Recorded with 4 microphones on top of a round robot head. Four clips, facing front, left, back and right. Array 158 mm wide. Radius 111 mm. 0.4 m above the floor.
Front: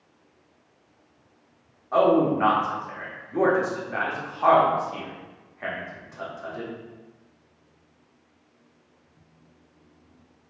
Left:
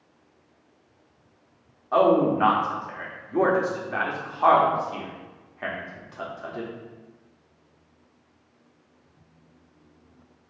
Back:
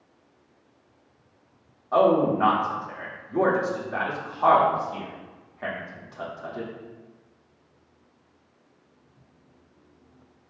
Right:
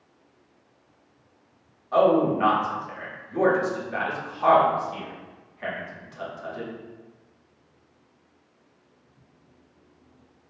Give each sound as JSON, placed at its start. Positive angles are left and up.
{"t": 1.9, "sound": "a man speaking", "azimuth_deg": 110, "distance_m": 1.1}